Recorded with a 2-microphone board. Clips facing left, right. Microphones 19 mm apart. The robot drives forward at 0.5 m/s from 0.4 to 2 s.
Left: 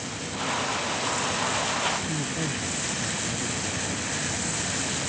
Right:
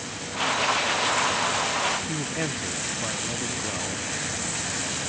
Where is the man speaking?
45° right (ahead or behind).